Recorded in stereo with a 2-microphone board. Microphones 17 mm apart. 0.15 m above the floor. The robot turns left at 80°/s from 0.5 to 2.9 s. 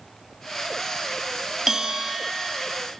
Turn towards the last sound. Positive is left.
turn(degrees=-130)